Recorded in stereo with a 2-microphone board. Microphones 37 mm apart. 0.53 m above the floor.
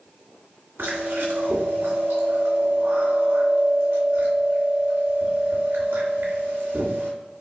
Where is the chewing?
80° right, 1.5 m.